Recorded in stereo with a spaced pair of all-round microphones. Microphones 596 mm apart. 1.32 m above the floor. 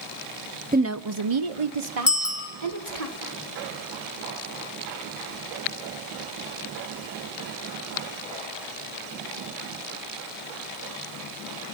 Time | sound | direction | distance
0.7 | a woman speaking | 15° right (ahead or behind) | 0.5 m
2.1 | a bicycle bell | 25° left (ahead or behind) | 2.5 m